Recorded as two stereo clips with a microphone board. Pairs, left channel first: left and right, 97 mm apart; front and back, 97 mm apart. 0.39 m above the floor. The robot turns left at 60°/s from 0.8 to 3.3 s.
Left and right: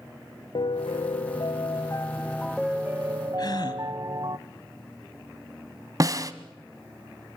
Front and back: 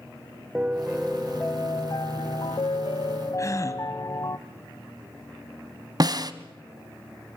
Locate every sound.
0.6 s a piano: 105° left, 0.7 m; by 4.4 s 45° right, 0.7 m
3.4 s a gasp: 50° left, 1.7 m
6.0 s a snare drum: 140° right, 1.0 m